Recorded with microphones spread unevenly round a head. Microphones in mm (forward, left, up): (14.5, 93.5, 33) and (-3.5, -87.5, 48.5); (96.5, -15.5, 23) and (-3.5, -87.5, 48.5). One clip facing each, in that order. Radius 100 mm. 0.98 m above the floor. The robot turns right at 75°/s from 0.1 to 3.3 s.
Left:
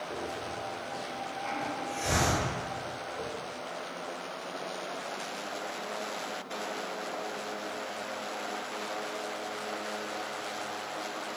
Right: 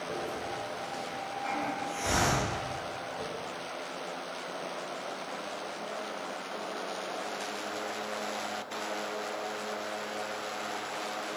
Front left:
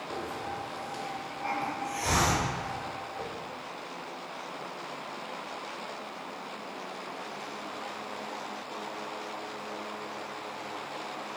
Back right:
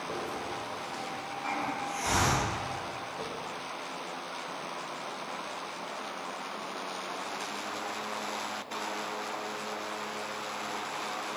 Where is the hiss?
110° right, 1.5 m; by 3.3 s 130° left, 1.5 m.